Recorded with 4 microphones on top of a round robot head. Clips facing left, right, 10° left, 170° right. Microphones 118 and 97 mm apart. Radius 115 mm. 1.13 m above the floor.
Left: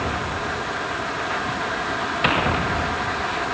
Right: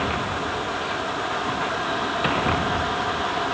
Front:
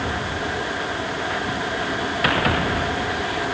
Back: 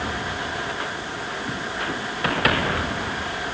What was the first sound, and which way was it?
Only background noise.